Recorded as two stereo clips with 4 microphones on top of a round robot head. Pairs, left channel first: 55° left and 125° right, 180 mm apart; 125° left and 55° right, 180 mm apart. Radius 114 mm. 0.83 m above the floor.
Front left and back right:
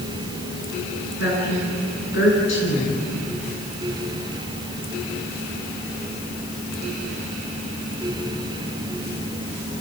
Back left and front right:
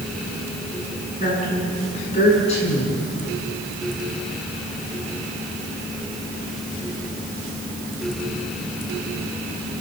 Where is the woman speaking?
70° left, 9.5 m.